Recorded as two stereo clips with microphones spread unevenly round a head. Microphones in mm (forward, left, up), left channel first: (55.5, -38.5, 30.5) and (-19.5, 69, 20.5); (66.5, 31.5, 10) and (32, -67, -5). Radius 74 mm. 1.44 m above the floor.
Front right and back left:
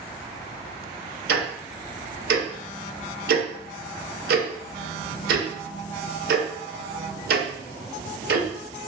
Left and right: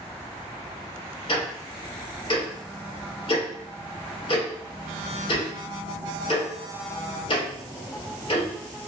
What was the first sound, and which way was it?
Ticking, 125° left.